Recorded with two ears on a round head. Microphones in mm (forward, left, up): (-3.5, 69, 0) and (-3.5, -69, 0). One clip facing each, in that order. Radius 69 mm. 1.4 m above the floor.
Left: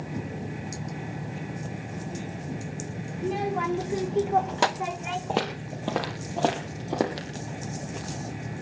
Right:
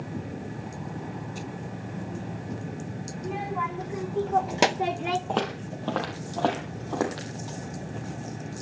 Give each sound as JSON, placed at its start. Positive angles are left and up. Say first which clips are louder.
{"t": 3.2, "sound": "a child speaking", "louder": "left 3 dB", "side_deg": 55, "distance_m": 1.7}
{"t": 5.3, "sound": "footsteps", "louder": "even", "side_deg": 10, "distance_m": 2.5}